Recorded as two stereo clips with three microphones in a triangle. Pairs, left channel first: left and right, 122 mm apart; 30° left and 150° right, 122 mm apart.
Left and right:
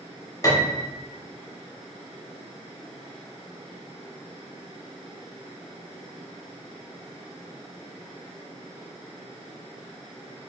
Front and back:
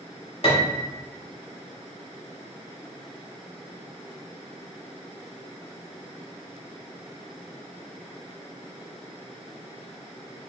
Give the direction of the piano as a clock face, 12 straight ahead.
11 o'clock.